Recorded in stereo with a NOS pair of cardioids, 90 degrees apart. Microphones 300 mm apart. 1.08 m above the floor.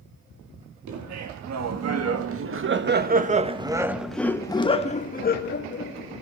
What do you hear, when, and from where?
0.9 s laughter: 70° right, 2.5 m; by 6.2 s 45° left, 2.5 m